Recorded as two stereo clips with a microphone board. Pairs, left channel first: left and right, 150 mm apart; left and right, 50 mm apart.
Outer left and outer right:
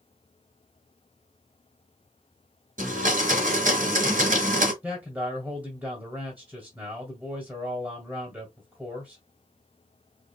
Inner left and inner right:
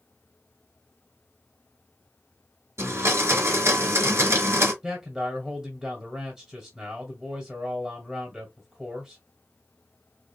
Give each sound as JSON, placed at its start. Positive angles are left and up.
{"t": 2.8, "sound": "a blender", "side_deg": -60, "distance_m": 2.0}
{"t": 4.8, "sound": "a man speaking", "side_deg": -10, "distance_m": 2.0}